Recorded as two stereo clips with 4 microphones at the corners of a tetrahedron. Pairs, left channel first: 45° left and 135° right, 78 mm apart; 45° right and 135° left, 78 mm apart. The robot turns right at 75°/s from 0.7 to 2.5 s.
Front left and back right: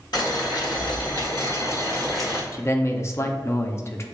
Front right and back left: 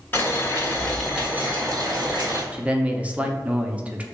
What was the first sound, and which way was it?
Boiling, 20° left.